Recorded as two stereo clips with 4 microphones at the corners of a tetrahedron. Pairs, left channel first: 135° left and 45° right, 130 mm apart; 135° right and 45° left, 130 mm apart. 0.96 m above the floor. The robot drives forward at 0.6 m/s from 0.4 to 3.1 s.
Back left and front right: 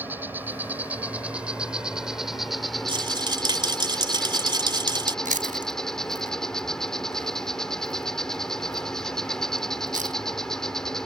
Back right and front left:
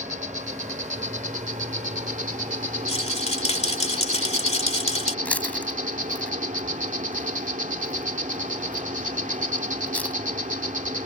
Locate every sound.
0.0 s an insect: 30° left; by 11.1 s 50° left
2.9 s a rattle: 95° right; by 5.2 s 100° right
5.2 s chewing: 55° right